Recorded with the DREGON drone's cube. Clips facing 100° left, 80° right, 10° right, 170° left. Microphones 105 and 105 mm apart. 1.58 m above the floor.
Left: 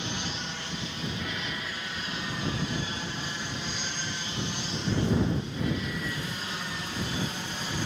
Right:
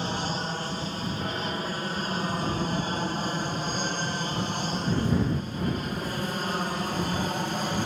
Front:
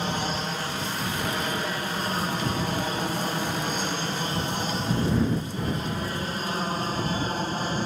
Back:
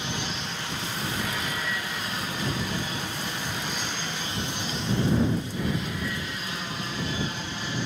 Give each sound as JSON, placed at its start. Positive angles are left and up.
{"t": 0.0, "sound": "an aircraft", "azimuth_deg": -45}